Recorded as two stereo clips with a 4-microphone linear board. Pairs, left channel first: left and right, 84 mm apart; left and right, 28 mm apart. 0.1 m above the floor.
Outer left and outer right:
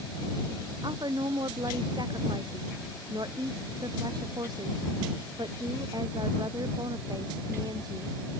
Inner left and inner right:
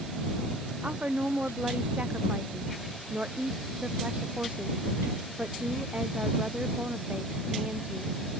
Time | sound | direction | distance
0.8 | a woman speaking | 55° right (ahead or behind) | ?